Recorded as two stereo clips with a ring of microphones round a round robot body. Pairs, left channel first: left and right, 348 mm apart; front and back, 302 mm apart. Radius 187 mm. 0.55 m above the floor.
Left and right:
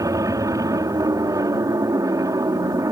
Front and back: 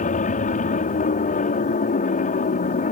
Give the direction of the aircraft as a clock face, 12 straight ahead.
1 o'clock.